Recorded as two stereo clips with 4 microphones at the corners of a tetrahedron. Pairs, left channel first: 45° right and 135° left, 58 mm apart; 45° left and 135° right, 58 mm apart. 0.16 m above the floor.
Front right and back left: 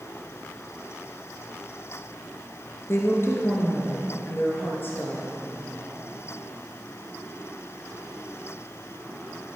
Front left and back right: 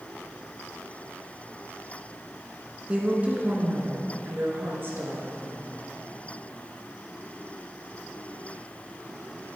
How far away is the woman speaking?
About 1.8 m.